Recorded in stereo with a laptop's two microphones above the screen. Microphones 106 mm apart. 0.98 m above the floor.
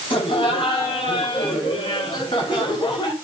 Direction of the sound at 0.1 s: 55° left (ahead or behind).